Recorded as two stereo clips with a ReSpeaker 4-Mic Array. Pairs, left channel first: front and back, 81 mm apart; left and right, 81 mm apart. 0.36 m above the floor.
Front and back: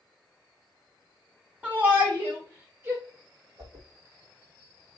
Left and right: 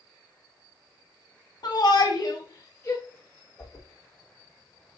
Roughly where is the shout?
Left.